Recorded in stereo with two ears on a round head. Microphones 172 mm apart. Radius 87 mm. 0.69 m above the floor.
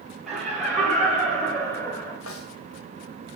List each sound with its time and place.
0.3 s laughter: centre (ahead or behind), 3 m; by 2.2 s 15° left (ahead or behind), 2.5 m
2.3 s a snare drum: 80° left, 2.5 m